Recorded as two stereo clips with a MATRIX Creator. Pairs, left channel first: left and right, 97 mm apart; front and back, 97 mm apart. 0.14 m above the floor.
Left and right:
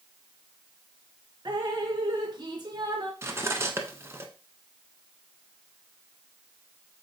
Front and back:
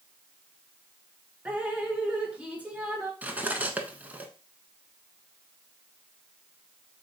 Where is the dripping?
110° right, 1.2 m.